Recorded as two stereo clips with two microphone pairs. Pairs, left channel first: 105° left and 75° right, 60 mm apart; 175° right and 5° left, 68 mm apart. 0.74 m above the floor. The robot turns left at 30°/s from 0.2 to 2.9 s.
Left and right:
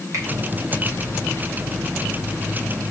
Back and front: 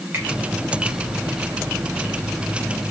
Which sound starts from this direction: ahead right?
A finger snap, at 0.1 s.